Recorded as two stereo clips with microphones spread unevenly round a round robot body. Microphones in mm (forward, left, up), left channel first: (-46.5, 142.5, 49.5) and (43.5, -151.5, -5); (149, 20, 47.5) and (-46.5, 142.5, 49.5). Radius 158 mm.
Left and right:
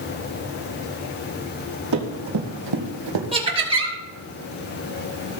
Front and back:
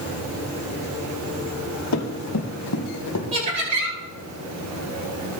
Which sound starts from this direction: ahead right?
Running footsteps, at 1.9 s.